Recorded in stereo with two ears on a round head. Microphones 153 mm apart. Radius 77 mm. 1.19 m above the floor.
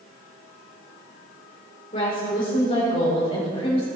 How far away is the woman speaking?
About 4.5 m.